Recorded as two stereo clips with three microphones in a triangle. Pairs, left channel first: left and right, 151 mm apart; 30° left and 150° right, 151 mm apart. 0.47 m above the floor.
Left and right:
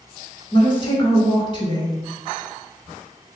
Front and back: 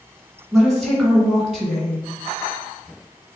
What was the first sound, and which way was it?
A woman speaking, 115° left.